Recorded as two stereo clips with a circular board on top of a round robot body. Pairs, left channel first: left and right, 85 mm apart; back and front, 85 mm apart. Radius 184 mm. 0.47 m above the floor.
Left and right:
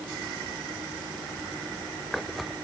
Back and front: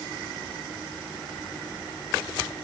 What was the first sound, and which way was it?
Only background noise.